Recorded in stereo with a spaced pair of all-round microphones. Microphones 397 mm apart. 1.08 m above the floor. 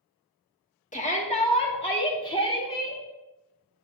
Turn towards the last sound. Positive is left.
turn(degrees=10)  # may be behind; listen again after turning